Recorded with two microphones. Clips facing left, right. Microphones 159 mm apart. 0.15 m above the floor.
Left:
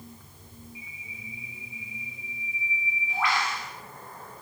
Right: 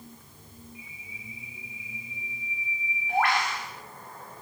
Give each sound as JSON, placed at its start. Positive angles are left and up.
{"t": 0.8, "sound": "a bird", "side_deg": -60, "distance_m": 8.0}